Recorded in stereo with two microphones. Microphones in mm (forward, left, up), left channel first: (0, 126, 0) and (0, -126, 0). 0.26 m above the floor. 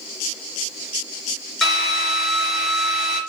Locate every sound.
1.6 s a drill: centre (ahead or behind), 3.5 m